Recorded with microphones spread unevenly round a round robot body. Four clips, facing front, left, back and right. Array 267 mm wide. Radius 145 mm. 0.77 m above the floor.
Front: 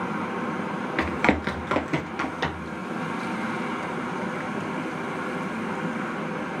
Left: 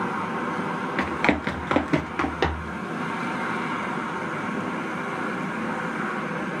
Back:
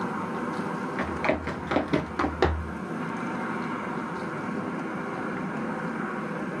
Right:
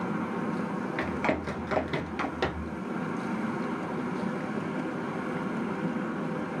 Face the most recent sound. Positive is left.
turn(degrees=155)